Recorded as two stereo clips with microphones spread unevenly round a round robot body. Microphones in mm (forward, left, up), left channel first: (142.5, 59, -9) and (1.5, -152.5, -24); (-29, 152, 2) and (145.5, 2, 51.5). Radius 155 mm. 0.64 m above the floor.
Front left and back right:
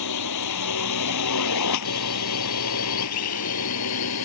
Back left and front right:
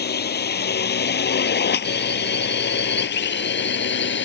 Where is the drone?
95° left; by 4.3 s 100° left.